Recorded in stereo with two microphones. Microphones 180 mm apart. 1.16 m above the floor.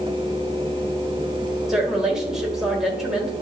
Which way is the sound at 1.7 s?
Centre (ahead or behind).